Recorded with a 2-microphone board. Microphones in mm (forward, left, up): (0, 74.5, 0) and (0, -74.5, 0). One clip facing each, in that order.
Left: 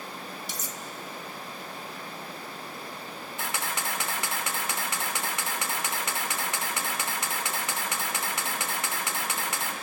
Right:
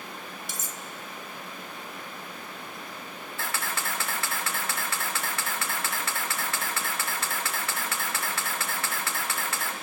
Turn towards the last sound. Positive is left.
turn(degrees=20)  # may be behind; listen again after turning